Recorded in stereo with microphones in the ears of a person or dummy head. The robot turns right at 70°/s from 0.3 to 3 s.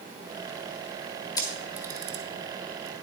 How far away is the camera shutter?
About 1.3 m.